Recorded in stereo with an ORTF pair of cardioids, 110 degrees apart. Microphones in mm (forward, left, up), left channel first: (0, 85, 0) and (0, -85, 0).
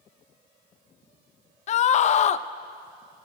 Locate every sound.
1.7 s a scream: 45° left, 0.6 m